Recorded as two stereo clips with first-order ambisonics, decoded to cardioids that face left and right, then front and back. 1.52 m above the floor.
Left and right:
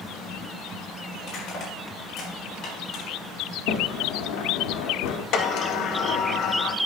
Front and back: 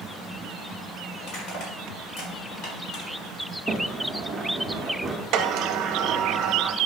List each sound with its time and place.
1.2 s crushing: 35° left, 3 m
3.7 s a sliding door: 100° left, 0.8 m
5.3 s a sliding door: 135° left, 0.8 m